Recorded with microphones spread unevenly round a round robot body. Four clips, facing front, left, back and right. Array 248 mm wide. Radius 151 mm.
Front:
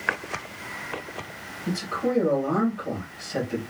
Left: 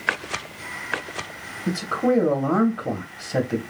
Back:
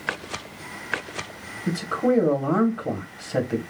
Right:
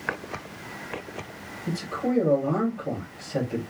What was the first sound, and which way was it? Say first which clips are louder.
A man speaking: left 6 dB, back 4 dB; 105° left.